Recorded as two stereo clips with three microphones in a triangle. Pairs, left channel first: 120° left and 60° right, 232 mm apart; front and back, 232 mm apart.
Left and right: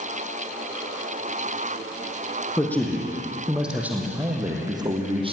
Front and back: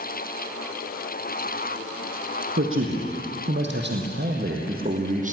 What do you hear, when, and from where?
2.6 s a man speaking: 160° right, 3.5 m; by 5.3 s 125° right, 3.5 m